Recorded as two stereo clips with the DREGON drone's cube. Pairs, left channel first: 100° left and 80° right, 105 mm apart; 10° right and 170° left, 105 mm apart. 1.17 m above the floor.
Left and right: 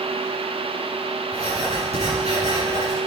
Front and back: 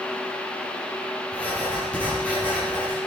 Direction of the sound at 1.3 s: 90° right.